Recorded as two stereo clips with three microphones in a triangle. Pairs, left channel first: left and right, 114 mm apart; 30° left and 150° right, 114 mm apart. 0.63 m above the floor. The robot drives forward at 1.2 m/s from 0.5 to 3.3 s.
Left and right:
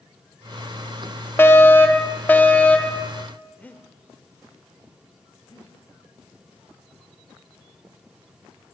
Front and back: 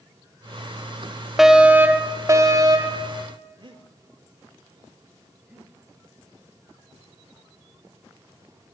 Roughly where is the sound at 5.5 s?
Behind left.